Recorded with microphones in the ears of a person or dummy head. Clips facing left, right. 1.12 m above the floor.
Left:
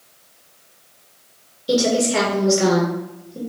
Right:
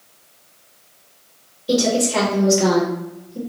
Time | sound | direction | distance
1.7 | a woman speaking | 15° left (ahead or behind) | 1.0 m